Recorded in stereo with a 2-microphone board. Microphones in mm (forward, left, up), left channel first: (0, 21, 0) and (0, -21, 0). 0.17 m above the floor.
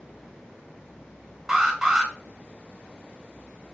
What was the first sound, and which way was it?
An alarm, 10° right (ahead or behind).